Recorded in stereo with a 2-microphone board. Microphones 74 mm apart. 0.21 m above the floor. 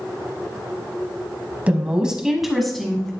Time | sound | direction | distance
1.7 | a woman speaking | 20° right (ahead or behind) | 1.2 m